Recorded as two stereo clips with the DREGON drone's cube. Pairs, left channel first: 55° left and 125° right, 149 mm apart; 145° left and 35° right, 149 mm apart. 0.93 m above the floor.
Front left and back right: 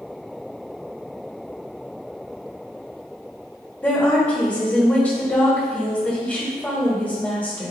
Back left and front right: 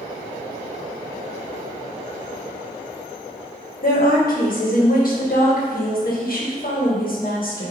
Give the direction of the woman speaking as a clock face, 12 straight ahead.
7 o'clock.